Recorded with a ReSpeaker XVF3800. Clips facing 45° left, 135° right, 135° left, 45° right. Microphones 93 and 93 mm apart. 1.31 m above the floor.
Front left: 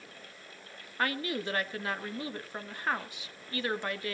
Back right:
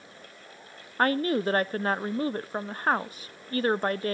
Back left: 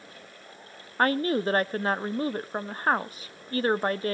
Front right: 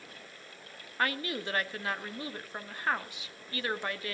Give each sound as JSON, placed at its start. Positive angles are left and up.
{"t": 1.0, "sound": "a woman speaking", "azimuth_deg": 180, "distance_m": 0.6}